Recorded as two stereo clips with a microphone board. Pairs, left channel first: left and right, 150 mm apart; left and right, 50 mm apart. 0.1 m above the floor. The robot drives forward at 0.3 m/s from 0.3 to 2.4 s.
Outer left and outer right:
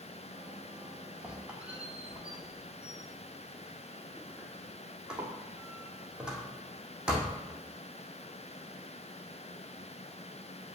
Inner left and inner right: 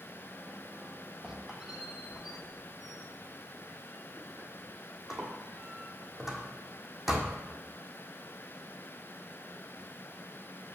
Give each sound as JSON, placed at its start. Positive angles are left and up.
{"t": 1.2, "sound": "a squeak", "side_deg": -10, "distance_m": 1.2}